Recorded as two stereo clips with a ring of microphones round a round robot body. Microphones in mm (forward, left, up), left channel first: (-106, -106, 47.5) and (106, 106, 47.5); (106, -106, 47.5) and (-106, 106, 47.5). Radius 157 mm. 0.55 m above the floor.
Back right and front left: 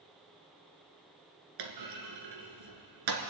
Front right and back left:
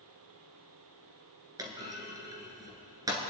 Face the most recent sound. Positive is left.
turn(degrees=55)